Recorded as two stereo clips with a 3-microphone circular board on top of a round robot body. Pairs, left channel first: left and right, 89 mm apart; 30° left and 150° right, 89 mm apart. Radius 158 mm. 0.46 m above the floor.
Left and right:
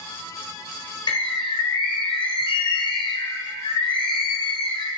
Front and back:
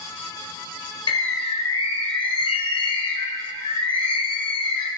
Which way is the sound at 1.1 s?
50° left.